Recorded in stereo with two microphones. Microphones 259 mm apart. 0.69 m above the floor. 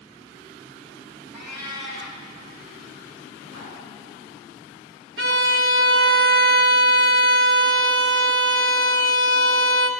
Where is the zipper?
85° left, 3 m.